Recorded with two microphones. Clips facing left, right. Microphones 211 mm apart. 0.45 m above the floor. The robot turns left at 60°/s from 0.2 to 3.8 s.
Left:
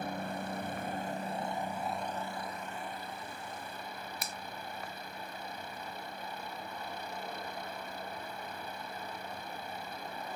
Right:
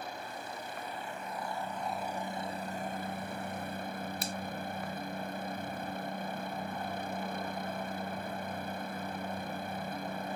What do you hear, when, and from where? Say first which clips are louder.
0.0 s a helicopter: left 5 dB; 105° left; by 10.4 s 115° right
4.2 s a finger snap: right 6 dB; 35° right (ahead or behind)